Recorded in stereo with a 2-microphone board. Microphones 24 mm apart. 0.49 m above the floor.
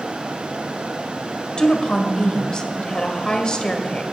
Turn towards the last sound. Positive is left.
turn(degrees=35)  # may be behind; listen again after turning